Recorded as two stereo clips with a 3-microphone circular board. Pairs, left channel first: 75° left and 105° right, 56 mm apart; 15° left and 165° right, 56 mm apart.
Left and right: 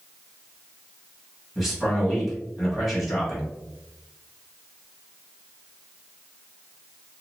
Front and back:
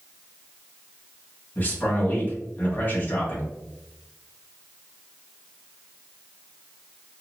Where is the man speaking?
20° right, 1.4 m.